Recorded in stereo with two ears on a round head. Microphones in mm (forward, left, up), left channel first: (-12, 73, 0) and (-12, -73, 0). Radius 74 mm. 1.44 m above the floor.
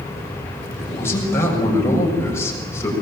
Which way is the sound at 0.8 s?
15° left (ahead or behind).